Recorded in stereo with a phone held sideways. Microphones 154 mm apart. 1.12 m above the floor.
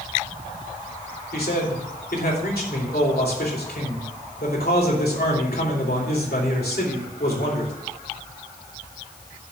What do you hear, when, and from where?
1.3 s a man speaking: 85° left, 2.5 m